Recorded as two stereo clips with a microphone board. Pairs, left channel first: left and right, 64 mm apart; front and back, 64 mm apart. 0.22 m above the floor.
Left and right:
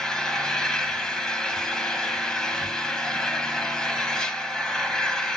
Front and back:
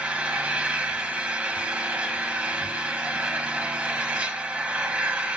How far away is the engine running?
About 1.2 m.